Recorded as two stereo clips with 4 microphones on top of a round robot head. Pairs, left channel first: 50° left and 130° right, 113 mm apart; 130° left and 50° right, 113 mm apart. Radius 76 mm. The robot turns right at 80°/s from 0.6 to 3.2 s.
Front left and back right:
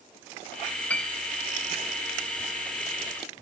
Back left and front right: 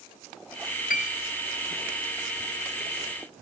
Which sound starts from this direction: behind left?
A piano, at 0.9 s.